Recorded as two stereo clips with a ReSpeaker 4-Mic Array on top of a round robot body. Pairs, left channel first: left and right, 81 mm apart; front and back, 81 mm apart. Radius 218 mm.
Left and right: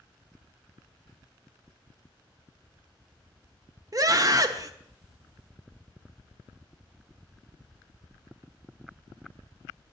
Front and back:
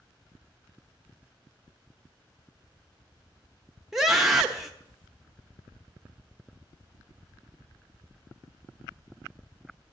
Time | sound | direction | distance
3.9 | a scream | 95° right | 1.0 m